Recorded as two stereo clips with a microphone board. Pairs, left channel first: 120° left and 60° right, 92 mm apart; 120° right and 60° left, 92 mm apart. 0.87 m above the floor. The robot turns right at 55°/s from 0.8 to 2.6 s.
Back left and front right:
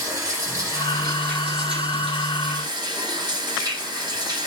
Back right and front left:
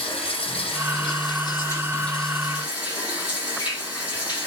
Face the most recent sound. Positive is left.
turn(degrees=-15)